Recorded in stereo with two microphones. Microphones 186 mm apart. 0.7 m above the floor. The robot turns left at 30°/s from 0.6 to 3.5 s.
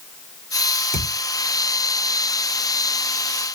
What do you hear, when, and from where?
0.9 s a thud: 65° right (ahead or behind), 2 m; by 1.1 s 60° right (ahead or behind), 2 m